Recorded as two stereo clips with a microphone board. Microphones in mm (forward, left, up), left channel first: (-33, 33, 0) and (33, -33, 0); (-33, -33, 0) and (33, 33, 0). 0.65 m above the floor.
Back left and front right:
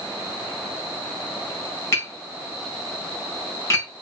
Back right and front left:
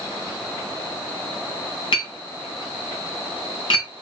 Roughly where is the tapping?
Behind.